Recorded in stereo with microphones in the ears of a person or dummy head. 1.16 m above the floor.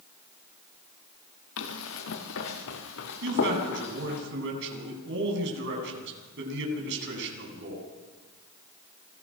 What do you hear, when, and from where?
1.6 s running footsteps: 70° left (ahead or behind), 5 m; by 4.2 s 55° left (ahead or behind), 3.5 m
3.2 s a man speaking: 60° right (ahead or behind), 9 m